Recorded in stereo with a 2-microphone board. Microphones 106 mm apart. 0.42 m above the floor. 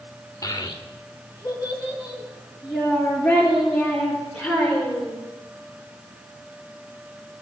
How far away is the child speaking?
About 0.7 m.